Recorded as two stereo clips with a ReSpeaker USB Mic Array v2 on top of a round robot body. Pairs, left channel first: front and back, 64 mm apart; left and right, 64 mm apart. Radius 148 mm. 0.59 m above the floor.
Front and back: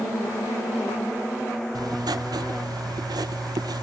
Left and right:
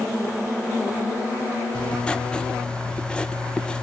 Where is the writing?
165° left, 0.6 m.